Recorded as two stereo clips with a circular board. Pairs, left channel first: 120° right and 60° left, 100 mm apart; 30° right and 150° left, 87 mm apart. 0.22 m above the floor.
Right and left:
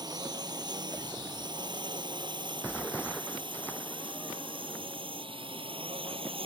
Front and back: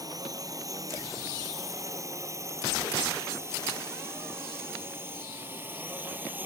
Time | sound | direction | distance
0.0 | a drone | 105° left | ?